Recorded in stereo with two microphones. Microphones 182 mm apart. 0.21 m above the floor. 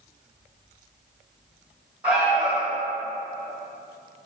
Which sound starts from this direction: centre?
An alarm, at 2.0 s.